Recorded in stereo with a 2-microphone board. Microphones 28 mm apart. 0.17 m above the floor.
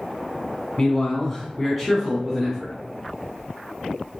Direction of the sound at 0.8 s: 25° left (ahead or behind).